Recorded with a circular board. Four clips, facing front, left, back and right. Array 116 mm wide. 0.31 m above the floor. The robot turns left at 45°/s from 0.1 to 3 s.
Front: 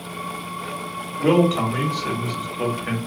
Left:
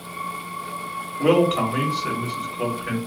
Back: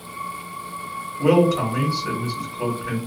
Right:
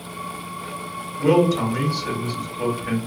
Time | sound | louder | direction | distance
1.2 | a man speaking | even, back 1 dB | 75° left | 1.3 m